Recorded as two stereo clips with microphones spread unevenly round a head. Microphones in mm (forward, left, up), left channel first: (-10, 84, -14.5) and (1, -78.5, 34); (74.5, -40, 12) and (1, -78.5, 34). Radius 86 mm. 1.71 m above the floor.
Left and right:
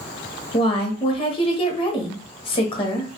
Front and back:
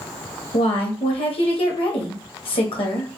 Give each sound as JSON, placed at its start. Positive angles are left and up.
{"t": 0.5, "sound": "a woman speaking", "azimuth_deg": 35, "distance_m": 0.7}